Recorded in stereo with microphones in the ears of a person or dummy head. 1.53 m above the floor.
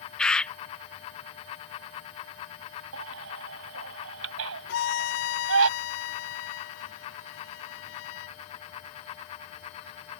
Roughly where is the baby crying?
Right.